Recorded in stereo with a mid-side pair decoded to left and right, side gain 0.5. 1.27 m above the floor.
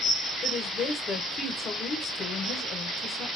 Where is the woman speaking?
55° left, 1.0 m.